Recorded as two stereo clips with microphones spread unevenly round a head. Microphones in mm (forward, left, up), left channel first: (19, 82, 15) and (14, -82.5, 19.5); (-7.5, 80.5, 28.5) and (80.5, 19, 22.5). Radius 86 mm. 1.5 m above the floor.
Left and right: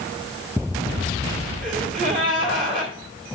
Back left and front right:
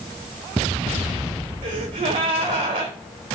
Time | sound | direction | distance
1.6 | a gasp | 55° right | 2.5 m